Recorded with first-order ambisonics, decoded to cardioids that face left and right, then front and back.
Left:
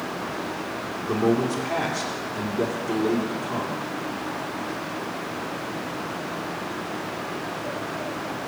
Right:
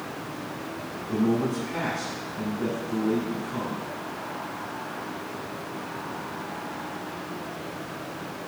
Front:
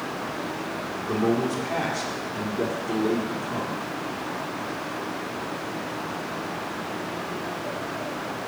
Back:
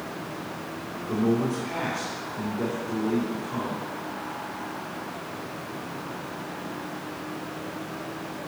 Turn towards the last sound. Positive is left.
turn(degrees=55)